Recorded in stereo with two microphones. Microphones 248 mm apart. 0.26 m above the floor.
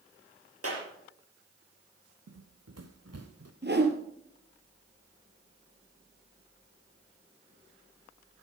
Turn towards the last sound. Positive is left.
turn(degrees=-45)  # may be behind; listen again after turning